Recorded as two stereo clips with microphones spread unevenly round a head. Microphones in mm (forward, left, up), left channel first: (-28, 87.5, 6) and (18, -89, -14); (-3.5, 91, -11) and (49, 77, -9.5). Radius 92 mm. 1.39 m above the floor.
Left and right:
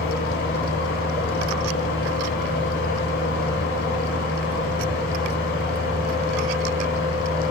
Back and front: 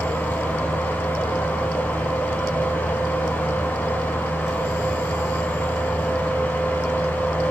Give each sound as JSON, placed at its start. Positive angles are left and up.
{"t": 0.0, "sound": "a fan", "azimuth_deg": 115, "distance_m": 2.5}